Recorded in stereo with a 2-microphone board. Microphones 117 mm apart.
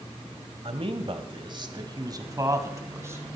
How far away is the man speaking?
About 1.5 m.